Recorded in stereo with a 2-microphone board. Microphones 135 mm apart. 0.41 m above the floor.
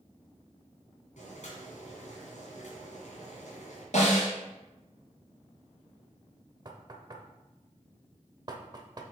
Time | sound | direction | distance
1.2 | boiling | 65° left (ahead or behind) | 2.5 m
3.9 | a snare drum | 60° left (ahead or behind) | 2.5 m
6.7 | knocking | 30° right (ahead or behind) | 0.8 m